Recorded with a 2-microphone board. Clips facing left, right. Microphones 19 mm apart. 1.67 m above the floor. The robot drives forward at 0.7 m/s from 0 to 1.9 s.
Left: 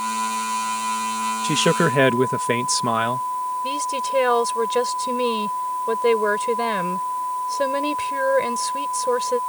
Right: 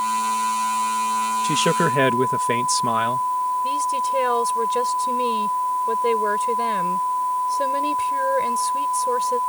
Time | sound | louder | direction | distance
1.4 | a man speaking | left 2 dB | 5° left (ahead or behind) | ?
3.6 | a woman speaking | right 2 dB | 25° left (ahead or behind) | ?